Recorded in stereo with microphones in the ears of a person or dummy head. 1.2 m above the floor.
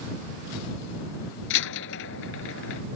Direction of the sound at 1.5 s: 65° left (ahead or behind).